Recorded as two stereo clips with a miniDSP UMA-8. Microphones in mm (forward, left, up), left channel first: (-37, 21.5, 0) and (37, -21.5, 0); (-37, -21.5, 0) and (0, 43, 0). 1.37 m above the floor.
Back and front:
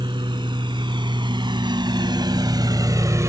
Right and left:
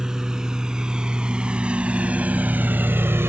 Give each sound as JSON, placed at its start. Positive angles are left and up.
{"t": 0.0, "sound": "a lawn mower", "azimuth_deg": -25}